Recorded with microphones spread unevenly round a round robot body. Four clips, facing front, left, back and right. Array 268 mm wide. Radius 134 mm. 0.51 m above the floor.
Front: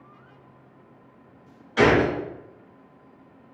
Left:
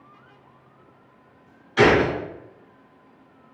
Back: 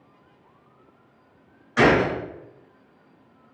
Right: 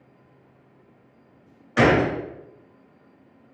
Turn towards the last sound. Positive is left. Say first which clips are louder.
# left 1 dB, even
turn(degrees=-100)